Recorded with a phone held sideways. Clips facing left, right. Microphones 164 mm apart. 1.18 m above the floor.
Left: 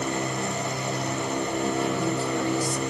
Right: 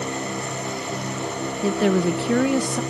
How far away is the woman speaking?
About 0.7 m.